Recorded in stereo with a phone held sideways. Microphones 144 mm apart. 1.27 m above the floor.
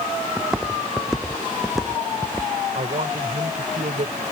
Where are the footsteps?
5° right (ahead or behind); by 2.5 s centre (ahead or behind).